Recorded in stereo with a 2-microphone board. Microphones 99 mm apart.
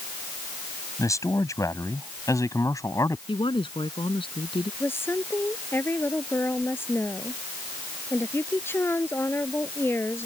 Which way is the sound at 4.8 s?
20° left (ahead or behind).